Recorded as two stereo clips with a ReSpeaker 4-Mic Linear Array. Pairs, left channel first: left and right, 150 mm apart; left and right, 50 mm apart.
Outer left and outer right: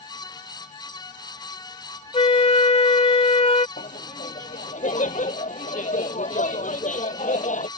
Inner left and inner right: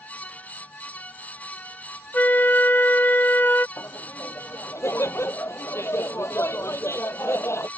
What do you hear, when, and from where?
2.1 s a flute: 40° left (ahead or behind)
3.8 s laughter: 60° left (ahead or behind)